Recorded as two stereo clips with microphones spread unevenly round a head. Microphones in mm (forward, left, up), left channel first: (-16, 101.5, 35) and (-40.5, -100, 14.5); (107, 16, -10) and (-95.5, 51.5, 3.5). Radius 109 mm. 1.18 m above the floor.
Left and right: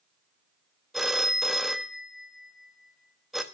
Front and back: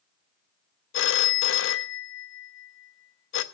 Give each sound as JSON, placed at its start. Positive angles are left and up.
{"t": 0.9, "sound": "a phone ringing", "azimuth_deg": -5, "distance_m": 0.7}